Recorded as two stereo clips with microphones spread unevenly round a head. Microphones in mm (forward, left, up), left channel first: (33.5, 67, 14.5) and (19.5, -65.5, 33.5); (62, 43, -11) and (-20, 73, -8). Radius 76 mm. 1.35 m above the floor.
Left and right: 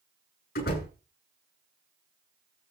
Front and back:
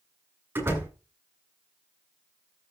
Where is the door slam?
95° left, 8 m.